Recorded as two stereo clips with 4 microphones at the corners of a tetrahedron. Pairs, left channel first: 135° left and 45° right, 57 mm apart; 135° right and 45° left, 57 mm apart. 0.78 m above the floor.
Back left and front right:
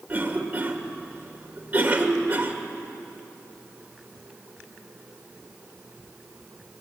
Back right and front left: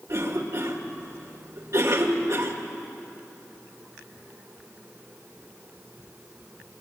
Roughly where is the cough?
Ahead.